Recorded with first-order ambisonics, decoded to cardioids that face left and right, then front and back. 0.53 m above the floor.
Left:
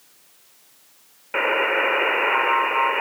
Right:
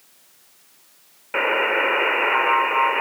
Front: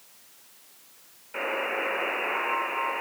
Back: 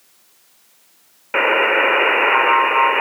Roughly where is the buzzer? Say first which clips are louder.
Even, back 14 dB; behind.